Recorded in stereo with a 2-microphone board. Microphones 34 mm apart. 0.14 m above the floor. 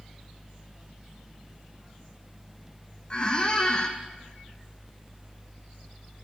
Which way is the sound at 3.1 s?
30° left (ahead or behind).